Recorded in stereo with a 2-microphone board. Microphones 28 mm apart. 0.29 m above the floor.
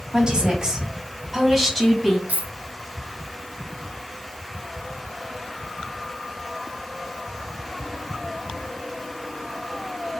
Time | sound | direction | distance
0.1 | a woman speaking | 35° right (ahead or behind) | 1.9 m
2.3 | a dropped coin | 80° right | 1.2 m